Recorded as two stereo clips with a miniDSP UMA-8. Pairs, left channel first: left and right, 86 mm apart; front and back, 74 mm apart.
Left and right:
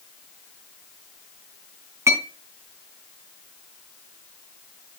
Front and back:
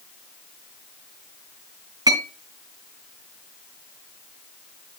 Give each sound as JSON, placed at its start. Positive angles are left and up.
{"t": 2.1, "sound": "a clink", "azimuth_deg": -145, "distance_m": 4.0}